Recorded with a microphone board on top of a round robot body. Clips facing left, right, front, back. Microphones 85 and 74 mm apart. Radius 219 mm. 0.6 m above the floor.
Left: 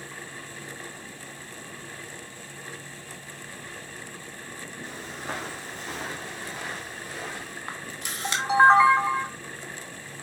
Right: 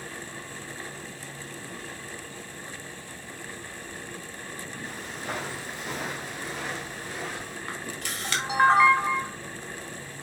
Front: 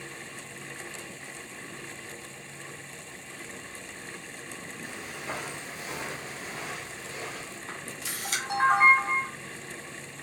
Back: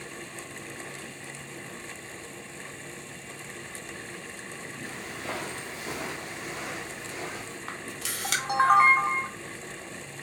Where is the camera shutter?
160° left, 0.8 m.